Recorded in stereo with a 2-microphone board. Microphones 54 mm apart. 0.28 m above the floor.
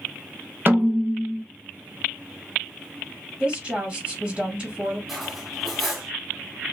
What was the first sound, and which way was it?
A snare drum, 40° right (ahead or behind).